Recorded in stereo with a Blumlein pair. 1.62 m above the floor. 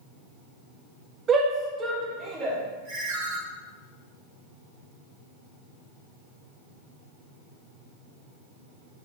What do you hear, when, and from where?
1.3 s a shout: 25° right, 1.6 m; by 2.6 s 15° right, 2.5 m
2.9 s a ringtone: 55° right, 2.5 m